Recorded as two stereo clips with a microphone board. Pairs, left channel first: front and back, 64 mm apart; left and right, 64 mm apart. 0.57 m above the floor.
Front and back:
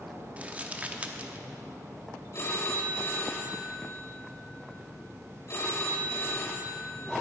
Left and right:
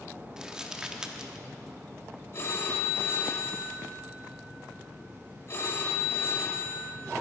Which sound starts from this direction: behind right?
Crumpling, at 0.4 s.